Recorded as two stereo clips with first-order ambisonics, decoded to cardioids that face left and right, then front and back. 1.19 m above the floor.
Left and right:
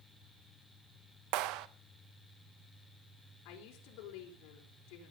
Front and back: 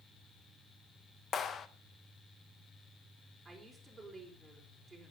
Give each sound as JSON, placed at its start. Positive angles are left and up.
{"t": 1.3, "sound": "a clap", "azimuth_deg": -65, "distance_m": 0.9}
{"t": 3.5, "sound": "a woman speaking", "azimuth_deg": 100, "distance_m": 4.5}